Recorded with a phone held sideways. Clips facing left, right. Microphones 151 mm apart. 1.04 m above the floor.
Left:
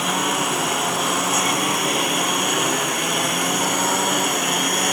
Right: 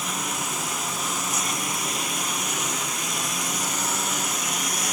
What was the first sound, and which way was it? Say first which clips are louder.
A lawn mower: left 9 dB; 70° left (ahead or behind).